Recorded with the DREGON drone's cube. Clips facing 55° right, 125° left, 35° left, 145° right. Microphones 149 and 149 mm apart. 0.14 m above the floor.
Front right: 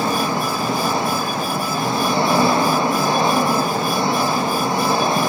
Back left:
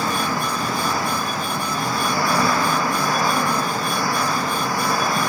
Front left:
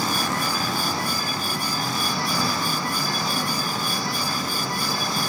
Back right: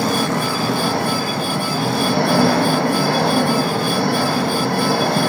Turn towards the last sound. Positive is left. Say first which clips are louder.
# front right 3 dB, back right 7 dB
turn(degrees=-120)